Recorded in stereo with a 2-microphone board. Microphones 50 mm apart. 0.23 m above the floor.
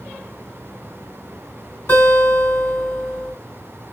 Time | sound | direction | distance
1.9 | a guitar | 50° left (ahead or behind) | 2.5 m